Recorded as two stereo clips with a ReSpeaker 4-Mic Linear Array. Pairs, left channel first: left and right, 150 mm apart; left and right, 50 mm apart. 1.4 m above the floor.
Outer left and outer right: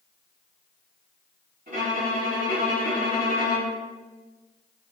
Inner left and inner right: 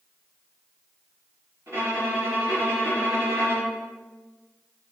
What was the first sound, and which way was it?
A violin, 55° right (ahead or behind).